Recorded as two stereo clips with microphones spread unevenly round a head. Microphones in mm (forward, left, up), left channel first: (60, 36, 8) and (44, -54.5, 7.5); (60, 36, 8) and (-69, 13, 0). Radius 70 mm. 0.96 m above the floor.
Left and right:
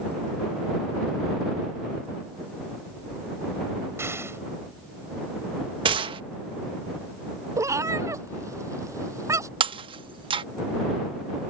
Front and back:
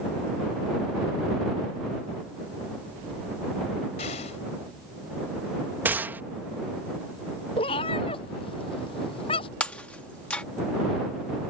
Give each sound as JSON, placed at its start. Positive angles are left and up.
{"t": 4.0, "sound": "an explosion", "azimuth_deg": -40}
{"t": 5.8, "sound": "a gunshot", "azimuth_deg": -95}
{"t": 7.6, "sound": "a cat meowing", "azimuth_deg": -45}
{"t": 9.6, "sound": "breaking glass", "azimuth_deg": -70}